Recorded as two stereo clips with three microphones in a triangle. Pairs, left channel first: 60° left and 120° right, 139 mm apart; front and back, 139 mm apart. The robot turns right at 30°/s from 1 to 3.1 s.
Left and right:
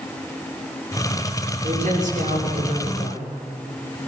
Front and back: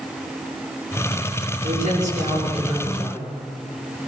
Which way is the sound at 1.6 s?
160° right.